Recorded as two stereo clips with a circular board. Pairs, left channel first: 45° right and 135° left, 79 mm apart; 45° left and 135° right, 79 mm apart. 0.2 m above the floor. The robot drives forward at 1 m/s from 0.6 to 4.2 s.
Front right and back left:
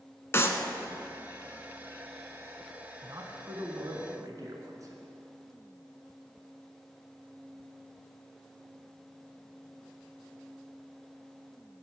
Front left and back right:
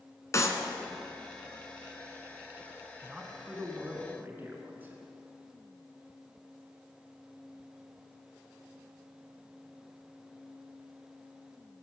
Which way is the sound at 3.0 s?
140° left.